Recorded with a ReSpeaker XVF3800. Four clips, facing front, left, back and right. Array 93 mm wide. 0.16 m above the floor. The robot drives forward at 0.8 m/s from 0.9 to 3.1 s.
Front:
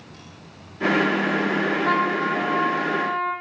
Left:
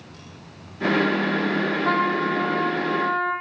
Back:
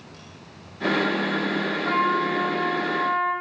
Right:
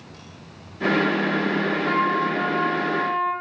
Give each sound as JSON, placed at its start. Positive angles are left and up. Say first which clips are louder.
{"t": 1.6, "sound": "a trumpet", "louder": "even, front 1 dB", "azimuth_deg": 80, "distance_m": 6.5}